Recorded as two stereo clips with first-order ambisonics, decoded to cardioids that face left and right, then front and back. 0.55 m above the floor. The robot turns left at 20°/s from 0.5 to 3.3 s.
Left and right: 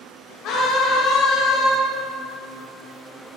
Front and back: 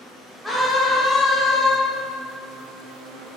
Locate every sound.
0.4 s a scream: 90° left, 1.8 m; by 1.7 s 65° left, 1.8 m